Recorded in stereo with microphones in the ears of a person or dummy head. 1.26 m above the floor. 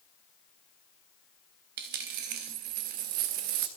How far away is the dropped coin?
About 0.8 m.